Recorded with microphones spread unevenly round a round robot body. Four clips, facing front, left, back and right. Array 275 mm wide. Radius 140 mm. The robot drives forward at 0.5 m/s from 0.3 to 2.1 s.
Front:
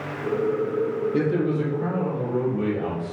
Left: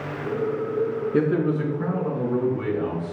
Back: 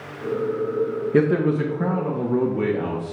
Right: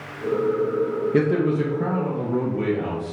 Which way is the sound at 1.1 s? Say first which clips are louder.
Right 1 dB, back 6 dB; 160° right.